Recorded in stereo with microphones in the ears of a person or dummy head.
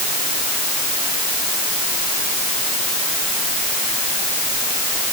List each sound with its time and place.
Only background noise.